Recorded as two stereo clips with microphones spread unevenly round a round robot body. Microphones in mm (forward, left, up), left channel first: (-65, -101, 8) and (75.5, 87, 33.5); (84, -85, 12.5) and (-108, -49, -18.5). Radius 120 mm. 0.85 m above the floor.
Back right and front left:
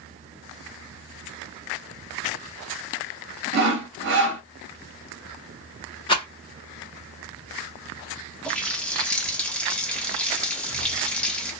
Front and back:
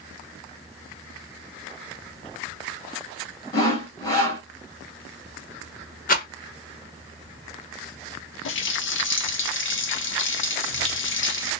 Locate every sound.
3.5 s sawing: 70° left, 0.9 m
6.1 s a rattle: 55° right, 1.1 m
8.4 s a running tap: 40° right, 0.8 m